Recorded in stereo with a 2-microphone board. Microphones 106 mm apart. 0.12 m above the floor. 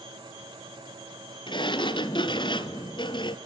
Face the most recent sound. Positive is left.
turn(degrees=45)  # may be behind; listen again after turning